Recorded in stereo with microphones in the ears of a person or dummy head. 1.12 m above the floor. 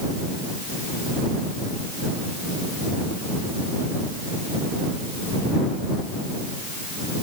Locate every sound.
Only background noise.